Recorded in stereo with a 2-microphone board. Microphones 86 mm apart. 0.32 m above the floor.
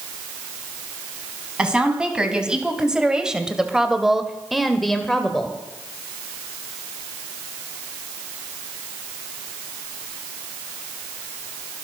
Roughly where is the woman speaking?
Centre.